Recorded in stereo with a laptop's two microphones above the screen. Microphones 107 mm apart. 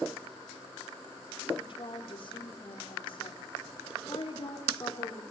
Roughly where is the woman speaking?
Left.